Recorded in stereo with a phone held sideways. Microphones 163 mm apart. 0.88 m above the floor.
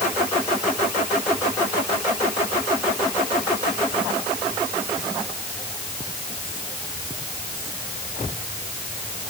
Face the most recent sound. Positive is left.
No sound to turn to.